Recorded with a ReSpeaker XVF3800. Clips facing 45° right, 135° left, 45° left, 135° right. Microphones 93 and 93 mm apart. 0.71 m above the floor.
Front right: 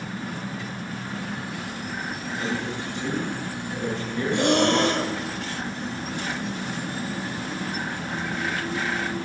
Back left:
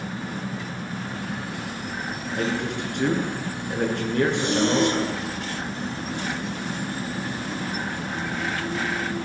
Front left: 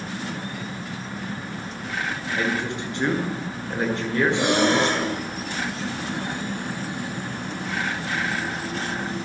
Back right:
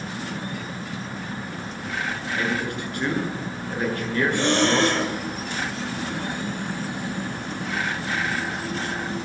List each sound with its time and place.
2.3 s a man speaking: 110° left, 9 m
4.3 s breathing: 35° right, 3 m